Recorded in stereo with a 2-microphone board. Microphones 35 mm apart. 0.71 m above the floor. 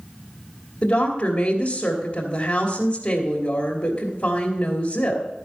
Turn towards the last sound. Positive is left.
turn(degrees=35)  # may be behind; listen again after turning